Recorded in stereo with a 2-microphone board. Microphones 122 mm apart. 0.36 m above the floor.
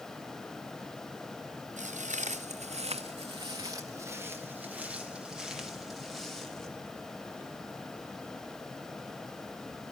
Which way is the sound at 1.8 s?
75° right (ahead or behind).